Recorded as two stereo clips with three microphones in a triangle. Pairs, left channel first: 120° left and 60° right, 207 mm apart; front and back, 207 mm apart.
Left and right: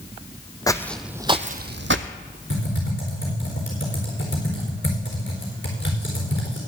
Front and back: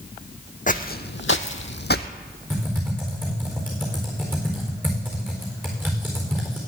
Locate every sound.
0.7 s footsteps: 45° left, 0.8 m; by 2.1 s 45° right, 0.8 m
2.5 s typing on a keyboard: 100° left, 4 m